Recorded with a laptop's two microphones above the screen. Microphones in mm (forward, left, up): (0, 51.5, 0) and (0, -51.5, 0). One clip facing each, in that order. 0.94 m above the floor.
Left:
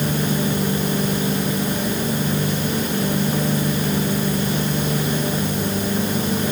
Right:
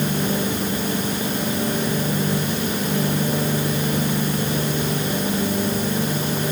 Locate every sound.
Only background noise.